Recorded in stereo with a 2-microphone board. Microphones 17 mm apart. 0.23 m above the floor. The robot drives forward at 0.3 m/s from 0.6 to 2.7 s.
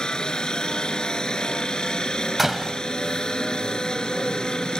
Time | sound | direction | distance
0.0 | a helicopter | 55° left (ahead or behind) | ?
2.4 | a door slam | 20° right (ahead or behind) | ?